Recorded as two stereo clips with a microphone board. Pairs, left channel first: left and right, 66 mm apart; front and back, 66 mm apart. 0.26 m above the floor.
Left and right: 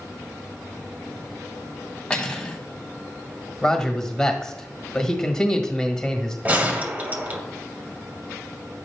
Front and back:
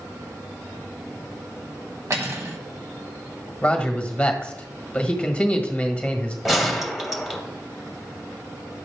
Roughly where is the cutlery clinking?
Behind.